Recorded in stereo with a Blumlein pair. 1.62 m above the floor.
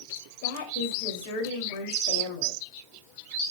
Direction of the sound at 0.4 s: 50° left.